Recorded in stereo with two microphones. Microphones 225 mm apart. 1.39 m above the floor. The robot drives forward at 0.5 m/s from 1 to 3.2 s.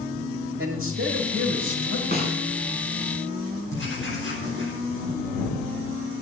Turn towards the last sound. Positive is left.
turn(degrees=-80)